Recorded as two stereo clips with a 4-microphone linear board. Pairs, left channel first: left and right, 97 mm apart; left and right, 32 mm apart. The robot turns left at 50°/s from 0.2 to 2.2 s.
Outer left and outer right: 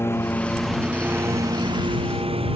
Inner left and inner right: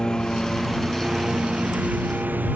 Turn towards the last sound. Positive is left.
turn(degrees=-75)